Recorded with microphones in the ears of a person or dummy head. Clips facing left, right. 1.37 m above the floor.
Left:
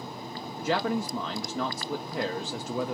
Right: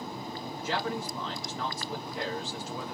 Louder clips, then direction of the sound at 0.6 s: Left 6 dB; 55° left (ahead or behind).